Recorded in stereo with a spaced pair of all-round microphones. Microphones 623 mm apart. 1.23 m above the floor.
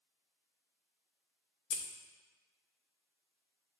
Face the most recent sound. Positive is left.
turn(degrees=75)  # may be behind; listen again after turning